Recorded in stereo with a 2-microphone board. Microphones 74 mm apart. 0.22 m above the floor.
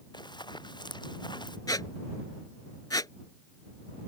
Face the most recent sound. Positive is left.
turn(degrees=60)  # may be behind; listen again after turning